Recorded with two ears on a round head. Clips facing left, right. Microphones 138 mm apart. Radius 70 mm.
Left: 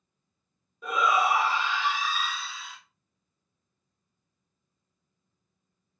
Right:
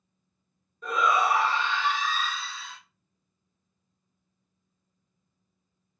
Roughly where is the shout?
Centre.